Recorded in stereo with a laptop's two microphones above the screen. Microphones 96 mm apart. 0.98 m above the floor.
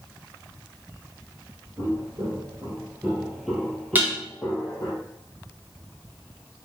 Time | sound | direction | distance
1.8 | footsteps | 45° right (ahead or behind) | 1.4 m
4.0 | dishes clattering | 20° right (ahead or behind) | 0.7 m